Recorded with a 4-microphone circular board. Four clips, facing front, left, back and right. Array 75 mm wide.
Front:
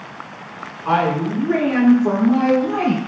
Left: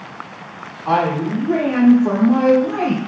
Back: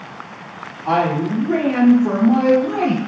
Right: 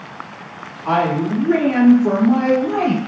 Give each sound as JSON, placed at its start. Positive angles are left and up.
{"t": 0.8, "sound": "a woman speaking", "azimuth_deg": -35, "distance_m": 1.1}